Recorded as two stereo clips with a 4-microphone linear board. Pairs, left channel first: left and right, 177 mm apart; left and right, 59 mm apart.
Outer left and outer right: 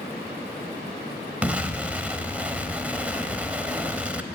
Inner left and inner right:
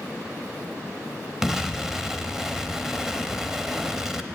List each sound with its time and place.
1.4 s an explosion: 10° right (ahead or behind), 0.6 m